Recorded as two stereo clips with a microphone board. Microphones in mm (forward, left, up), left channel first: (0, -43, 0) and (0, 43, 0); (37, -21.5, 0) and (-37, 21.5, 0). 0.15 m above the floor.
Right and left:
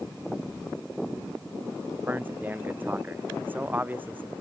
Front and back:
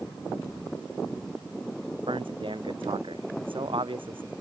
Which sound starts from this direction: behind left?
A man speaking, at 2.1 s.